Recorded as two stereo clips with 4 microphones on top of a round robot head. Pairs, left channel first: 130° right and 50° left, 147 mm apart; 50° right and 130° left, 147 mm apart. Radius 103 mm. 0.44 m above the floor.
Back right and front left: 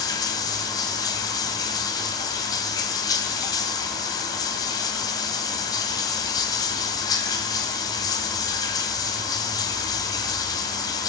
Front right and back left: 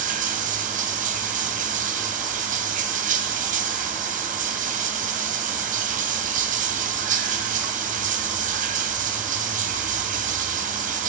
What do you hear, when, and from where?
0.0 s running water: 165° left, 1.4 m